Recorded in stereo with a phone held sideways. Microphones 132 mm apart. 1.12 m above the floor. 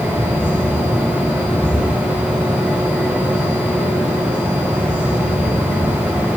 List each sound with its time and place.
0.0 s a fan: 15° right (ahead or behind), 3 m